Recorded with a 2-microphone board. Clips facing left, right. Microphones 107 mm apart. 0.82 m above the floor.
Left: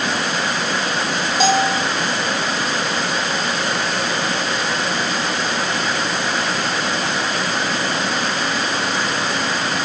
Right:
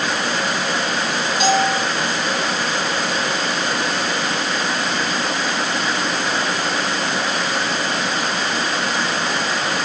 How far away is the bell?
About 0.7 m.